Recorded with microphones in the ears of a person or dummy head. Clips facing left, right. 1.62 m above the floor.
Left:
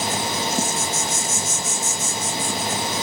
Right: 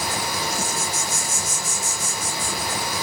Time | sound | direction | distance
0.0 | an insect | 30° left (ahead or behind) | 2.5 m